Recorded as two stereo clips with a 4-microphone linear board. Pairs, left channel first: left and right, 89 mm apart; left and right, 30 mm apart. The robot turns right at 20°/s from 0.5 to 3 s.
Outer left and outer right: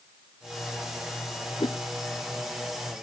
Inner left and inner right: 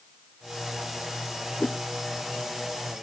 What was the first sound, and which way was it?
A whoosh, 60° left (ahead or behind).